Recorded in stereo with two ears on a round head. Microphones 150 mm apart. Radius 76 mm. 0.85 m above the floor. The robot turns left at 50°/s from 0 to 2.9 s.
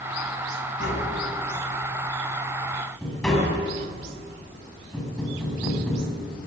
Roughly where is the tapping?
Left.